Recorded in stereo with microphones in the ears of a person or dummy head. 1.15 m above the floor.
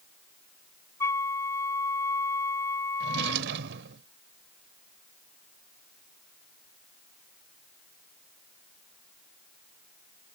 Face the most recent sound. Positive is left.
turn(degrees=-70)  # may be behind; listen again after turning